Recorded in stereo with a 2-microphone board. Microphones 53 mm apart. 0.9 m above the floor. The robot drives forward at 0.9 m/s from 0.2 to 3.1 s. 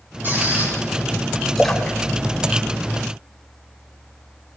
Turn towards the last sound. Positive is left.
turn(degrees=5)  # may be behind; listen again after turning